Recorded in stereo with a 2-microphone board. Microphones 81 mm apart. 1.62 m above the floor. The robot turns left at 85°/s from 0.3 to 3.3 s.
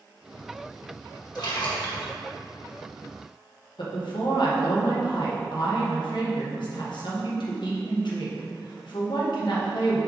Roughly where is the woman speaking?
Left.